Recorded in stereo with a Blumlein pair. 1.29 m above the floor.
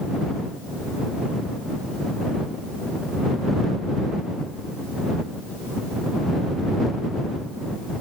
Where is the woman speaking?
I don't hear a woman speaking.